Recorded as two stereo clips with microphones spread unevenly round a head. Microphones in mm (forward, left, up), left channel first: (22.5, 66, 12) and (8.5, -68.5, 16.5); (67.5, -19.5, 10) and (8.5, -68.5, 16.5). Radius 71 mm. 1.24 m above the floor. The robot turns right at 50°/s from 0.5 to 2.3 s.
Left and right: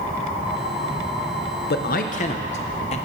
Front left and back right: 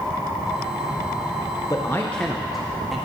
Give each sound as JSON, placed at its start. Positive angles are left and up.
{"t": 1.7, "sound": "a man speaking", "azimuth_deg": 100, "distance_m": 0.5}